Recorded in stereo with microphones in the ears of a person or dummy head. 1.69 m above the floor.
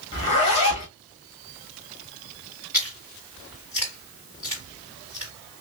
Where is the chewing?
10° right (ahead or behind), 3.5 m.